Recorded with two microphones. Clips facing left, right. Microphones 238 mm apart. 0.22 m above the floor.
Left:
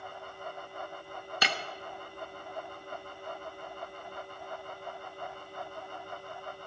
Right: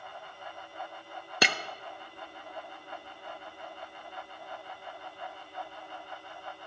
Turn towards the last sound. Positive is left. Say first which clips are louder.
# right 6 dB
turn(degrees=-75)  # may be behind; listen again after turning